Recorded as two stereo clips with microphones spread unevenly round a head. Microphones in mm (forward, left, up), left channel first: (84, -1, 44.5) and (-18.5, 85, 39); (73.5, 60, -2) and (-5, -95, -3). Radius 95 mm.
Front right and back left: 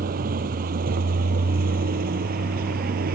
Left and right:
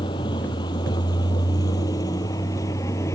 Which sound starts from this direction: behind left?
A vehicle, at 0.0 s.